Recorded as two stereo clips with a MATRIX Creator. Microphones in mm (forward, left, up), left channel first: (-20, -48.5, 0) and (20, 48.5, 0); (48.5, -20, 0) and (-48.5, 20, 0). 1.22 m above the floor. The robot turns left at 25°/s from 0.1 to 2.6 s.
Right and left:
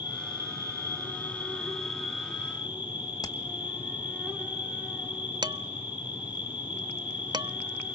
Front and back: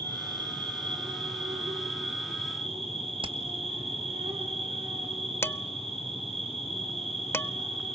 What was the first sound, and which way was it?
An insect, 155° right.